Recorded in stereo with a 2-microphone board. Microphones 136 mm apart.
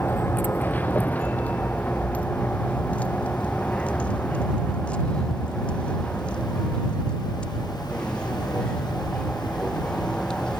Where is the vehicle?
15° left (ahead or behind); by 10.6 s 5° left (ahead or behind).